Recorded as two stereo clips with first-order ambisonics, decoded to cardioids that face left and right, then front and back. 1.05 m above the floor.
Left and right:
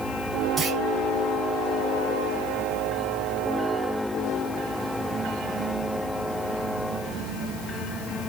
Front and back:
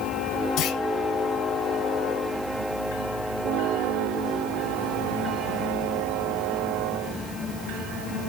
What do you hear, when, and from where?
0.6 s a clunk: 25° right, 1.1 m